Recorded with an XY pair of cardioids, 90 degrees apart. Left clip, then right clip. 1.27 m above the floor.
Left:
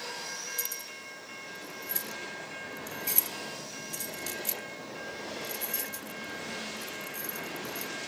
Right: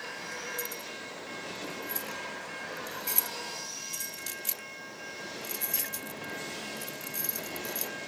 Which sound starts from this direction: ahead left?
Keys jangling, at 0.6 s.